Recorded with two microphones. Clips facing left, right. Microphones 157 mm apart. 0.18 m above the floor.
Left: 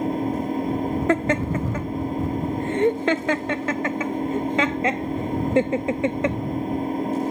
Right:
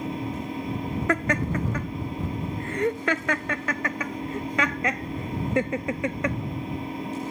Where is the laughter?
25° left (ahead or behind).